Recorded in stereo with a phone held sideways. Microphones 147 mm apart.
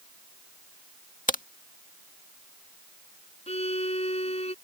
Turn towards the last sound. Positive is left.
turn(degrees=45)  # may be behind; listen again after turning